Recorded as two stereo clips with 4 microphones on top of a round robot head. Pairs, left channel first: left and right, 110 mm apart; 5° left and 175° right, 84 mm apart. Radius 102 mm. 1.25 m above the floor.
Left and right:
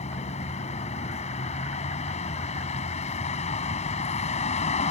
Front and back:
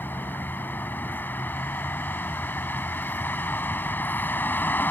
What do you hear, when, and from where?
0.0 s a vehicle: 70° left